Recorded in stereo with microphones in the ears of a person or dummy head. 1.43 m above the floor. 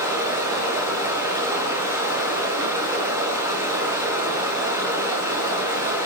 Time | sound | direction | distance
0.0 | running water | 15° right (ahead or behind) | 5.5 m